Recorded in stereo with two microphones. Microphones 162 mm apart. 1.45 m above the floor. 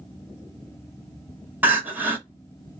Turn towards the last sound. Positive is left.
turn(degrees=-15)  # may be behind; listen again after turning